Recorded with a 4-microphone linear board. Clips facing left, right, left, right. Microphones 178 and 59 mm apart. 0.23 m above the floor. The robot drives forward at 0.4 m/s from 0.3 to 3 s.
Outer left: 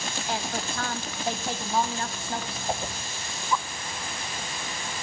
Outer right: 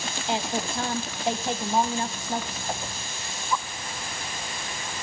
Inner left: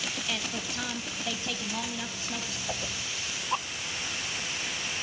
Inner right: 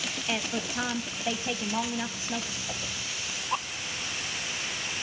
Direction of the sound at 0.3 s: 25° right (ahead or behind).